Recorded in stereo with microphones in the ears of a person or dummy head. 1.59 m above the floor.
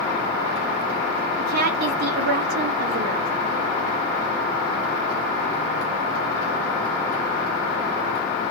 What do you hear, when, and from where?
1.4 s a woman speaking: 50° right (ahead or behind), 0.5 m